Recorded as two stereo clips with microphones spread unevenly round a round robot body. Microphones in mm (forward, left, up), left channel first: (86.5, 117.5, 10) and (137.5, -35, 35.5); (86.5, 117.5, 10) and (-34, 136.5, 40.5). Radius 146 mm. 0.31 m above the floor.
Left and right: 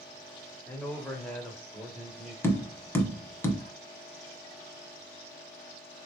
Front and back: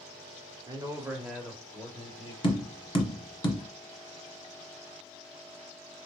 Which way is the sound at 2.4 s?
35° left.